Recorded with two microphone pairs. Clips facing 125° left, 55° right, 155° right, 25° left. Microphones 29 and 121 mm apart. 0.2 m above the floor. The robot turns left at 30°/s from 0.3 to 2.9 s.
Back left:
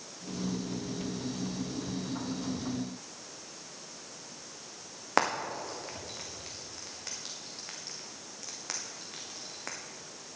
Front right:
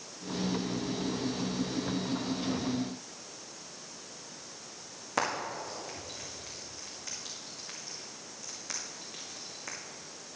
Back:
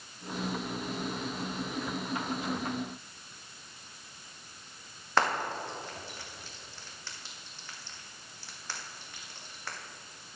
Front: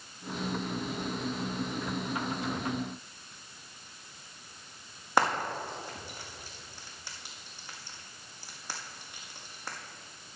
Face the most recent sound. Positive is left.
turn(degrees=100)